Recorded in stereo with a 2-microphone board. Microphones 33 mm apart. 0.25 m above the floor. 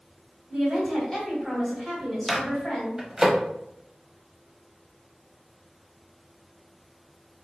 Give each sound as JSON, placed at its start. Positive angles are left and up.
{"t": 0.5, "sound": "a woman speaking", "side_deg": 5, "distance_m": 1.8}
{"t": 2.3, "sound": "a microwave", "side_deg": -20, "distance_m": 0.8}